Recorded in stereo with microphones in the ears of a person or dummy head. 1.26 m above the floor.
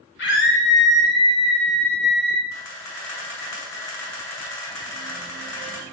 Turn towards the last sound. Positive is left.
turn(degrees=70)  # may be behind; listen again after turning